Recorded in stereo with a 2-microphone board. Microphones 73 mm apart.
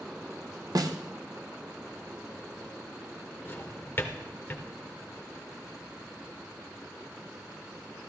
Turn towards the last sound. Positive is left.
turn(degrees=30)  # may be behind; listen again after turning